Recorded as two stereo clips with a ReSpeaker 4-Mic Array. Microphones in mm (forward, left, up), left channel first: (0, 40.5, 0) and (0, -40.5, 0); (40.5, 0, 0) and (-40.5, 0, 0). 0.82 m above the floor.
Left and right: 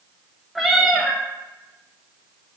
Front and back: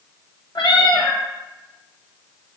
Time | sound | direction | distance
0.6 | a cat meowing | straight ahead | 0.6 m